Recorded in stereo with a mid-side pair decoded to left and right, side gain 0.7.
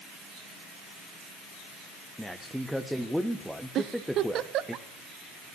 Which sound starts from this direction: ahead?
A man speaking, at 2.2 s.